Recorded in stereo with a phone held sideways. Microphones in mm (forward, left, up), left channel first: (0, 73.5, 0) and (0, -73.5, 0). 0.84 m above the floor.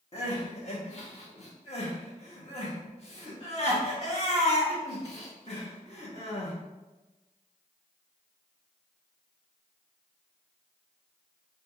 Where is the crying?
45° left (ahead or behind), 1.2 m.